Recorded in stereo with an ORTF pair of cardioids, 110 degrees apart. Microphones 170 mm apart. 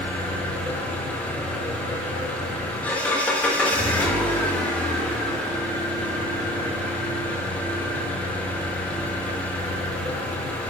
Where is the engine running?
10° left, 0.8 m.